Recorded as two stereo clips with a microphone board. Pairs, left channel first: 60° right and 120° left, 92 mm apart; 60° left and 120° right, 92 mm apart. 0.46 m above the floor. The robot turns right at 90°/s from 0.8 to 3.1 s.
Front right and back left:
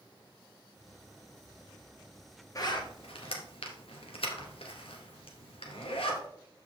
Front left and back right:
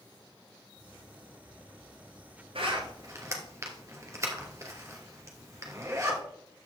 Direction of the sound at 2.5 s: 110° right.